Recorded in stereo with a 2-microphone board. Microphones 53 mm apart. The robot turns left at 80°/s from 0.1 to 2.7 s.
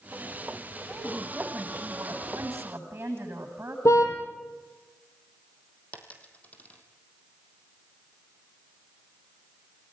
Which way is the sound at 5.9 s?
25° left (ahead or behind).